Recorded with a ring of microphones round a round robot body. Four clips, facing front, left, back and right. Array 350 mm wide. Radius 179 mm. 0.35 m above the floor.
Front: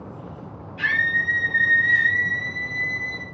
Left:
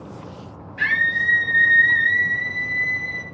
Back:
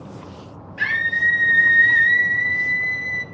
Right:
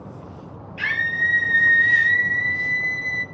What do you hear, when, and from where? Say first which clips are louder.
0.8 s a scream: left 2 dB, back 1 dB; 165° right, 7 m; by 3.2 s 165° left, 6 m